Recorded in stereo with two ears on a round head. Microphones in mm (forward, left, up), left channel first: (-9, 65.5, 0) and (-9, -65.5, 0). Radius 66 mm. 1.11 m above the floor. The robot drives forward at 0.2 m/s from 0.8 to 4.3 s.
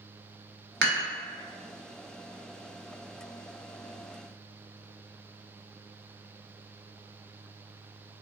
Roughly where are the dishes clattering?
Right.